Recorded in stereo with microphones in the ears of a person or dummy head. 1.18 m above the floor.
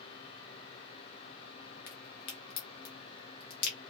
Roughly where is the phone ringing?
No phone ringing in this recording.